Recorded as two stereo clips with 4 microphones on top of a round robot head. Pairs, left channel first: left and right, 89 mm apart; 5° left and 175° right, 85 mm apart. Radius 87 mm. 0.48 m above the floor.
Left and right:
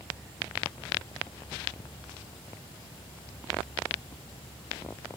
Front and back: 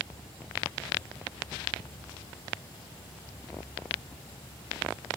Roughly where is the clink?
I don't hear a clink.